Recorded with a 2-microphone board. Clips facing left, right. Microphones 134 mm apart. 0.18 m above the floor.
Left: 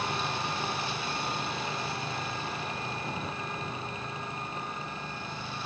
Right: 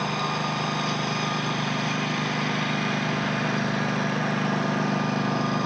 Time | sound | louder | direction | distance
0.0 | a lawn mower | right 5 dB | 60° right (ahead or behind) | ?